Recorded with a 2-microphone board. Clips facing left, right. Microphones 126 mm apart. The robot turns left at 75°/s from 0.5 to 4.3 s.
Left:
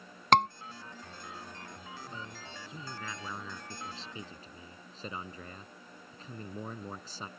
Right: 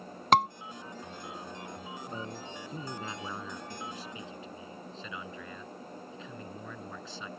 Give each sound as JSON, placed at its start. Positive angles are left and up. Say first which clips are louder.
{"t": 0.3, "sound": "a scream", "louder": "even", "side_deg": -5}
{"t": 2.1, "sound": "a man speaking", "louder": "right 6 dB", "azimuth_deg": -70}